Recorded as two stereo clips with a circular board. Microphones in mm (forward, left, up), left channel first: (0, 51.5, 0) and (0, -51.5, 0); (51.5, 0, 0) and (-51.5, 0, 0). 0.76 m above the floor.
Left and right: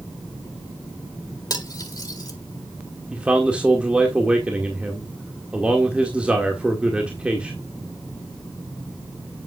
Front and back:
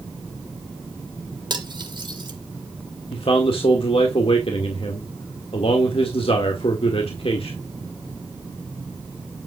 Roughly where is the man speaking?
Ahead.